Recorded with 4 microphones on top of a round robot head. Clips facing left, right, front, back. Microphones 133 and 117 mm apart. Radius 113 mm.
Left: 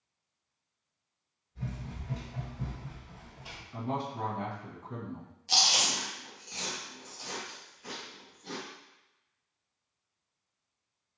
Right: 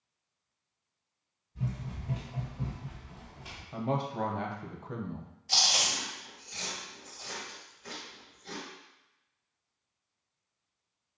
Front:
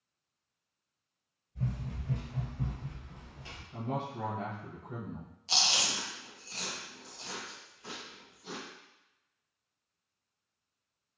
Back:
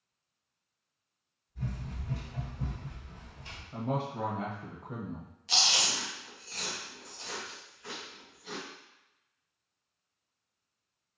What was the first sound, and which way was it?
Running footsteps, 35° right.